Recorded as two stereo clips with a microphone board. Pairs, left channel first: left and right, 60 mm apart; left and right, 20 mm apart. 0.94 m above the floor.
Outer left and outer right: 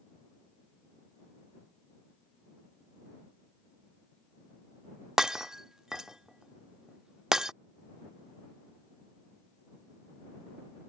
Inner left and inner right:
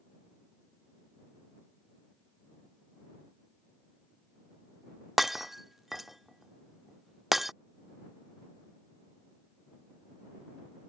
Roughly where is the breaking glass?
Centre.